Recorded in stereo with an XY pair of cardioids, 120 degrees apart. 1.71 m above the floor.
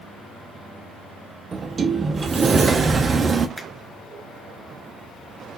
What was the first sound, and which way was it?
A sliding door, 35° right.